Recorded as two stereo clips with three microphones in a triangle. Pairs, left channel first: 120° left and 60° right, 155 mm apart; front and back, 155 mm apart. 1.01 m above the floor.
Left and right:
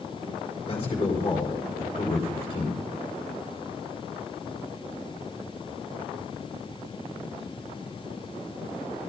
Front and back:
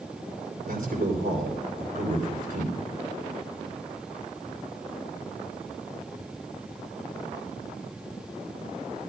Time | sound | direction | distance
0.7 | a man speaking | 175° left | 4.5 m